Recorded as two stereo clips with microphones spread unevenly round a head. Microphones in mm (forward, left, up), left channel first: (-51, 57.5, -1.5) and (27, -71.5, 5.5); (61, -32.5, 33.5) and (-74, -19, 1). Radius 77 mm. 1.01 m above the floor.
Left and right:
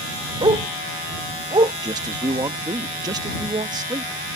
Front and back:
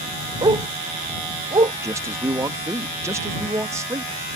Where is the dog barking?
120° right.